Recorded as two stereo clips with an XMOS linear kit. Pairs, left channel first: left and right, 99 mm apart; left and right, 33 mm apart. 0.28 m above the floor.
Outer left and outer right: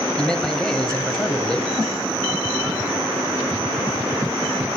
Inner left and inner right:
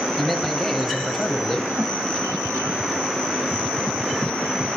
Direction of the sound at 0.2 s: 5° left (ahead or behind).